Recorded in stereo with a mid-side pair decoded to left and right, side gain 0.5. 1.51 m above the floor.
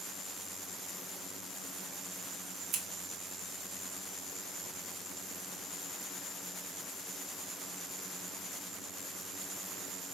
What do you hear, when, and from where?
2.7 s scissors: 65° right, 1.1 m